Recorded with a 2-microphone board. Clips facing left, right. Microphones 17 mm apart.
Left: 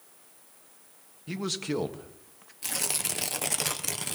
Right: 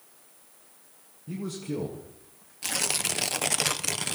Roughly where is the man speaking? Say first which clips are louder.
Left 3 dB; left.